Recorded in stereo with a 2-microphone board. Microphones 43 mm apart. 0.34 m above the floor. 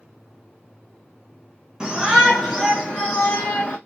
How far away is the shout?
About 1.2 m.